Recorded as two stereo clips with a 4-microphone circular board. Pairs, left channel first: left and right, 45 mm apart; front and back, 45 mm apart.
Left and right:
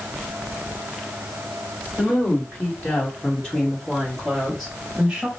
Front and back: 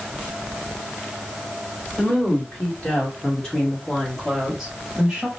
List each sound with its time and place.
2.0 s a woman speaking: 50° left, 2.0 m; by 5.3 s 145° right, 1.2 m